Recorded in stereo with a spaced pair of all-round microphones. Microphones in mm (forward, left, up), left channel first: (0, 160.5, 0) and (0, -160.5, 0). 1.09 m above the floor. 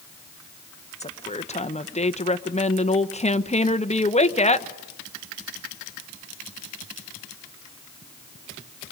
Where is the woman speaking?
20° left (ahead or behind), 0.8 m.